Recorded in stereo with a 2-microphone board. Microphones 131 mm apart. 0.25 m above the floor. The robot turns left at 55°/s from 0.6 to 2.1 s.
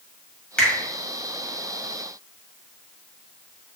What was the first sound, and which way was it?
A finger snap, 10° left (ahead or behind).